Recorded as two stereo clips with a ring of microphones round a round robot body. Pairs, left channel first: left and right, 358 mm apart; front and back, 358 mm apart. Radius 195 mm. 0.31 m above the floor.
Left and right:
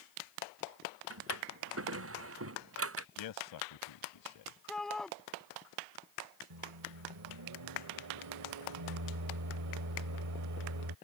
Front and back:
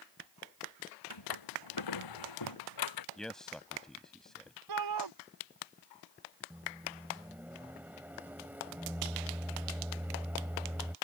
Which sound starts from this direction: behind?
A shout, at 4.7 s.